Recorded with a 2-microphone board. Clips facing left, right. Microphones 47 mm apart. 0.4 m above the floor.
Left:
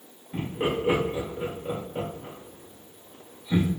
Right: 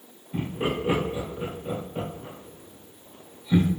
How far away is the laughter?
About 1.1 m.